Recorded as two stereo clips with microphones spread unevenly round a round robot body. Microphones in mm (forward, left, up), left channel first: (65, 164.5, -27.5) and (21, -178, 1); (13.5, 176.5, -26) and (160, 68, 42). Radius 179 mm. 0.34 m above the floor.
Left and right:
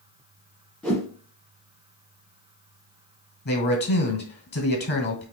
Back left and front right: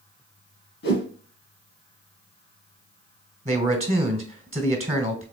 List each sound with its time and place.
0.8 s a whoosh: 170° left, 0.8 m
3.5 s a man speaking: 30° left, 1.7 m